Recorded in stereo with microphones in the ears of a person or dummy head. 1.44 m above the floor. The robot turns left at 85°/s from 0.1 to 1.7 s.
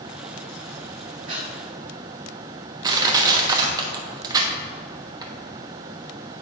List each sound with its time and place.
1.3 s breathing: 35° right (ahead or behind), 2 m; by 1.5 s 20° right (ahead or behind), 2 m
2.8 s crushing: 20° right (ahead or behind), 1.1 m